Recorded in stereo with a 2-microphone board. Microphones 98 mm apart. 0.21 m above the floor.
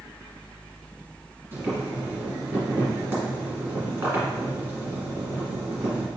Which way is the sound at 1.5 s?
25° right (ahead or behind).